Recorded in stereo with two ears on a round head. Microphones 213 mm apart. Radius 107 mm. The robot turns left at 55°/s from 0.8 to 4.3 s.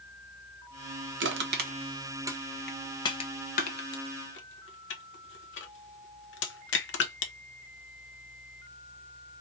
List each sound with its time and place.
1.2 s crushing: 50° right (ahead or behind), 1.0 m; by 7.3 s 50° left (ahead or behind), 1.0 m